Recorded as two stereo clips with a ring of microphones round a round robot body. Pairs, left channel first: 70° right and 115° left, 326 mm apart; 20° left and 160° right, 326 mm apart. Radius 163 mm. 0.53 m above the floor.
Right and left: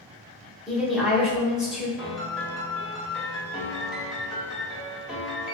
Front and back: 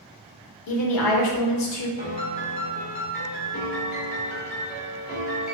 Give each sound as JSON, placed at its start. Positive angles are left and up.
{"t": 0.7, "sound": "a woman speaking", "azimuth_deg": 25, "distance_m": 0.9}
{"t": 2.0, "sound": "a piano", "azimuth_deg": 25, "distance_m": 1.0}